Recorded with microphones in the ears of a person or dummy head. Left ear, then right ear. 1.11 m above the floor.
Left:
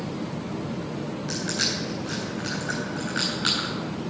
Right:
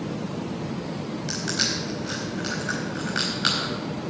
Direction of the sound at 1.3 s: 25° right (ahead or behind).